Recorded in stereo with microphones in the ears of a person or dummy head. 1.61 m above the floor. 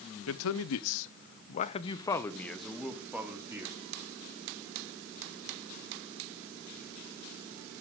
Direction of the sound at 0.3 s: 75° left (ahead or behind).